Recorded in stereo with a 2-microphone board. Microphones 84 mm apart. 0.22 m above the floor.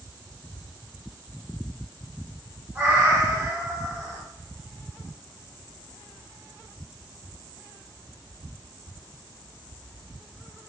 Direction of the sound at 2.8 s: 25° right (ahead or behind).